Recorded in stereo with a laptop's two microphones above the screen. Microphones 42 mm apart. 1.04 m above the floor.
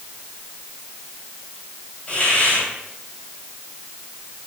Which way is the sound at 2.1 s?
25° left (ahead or behind).